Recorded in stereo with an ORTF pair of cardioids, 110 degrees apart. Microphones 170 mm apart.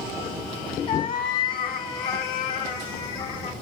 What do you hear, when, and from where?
0.9 s a cat meowing: 55° left, 2.5 m; by 3.5 s 80° left, 6 m